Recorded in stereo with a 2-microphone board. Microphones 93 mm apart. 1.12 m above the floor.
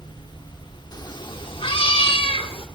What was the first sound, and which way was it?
A cat meowing, 45° left (ahead or behind).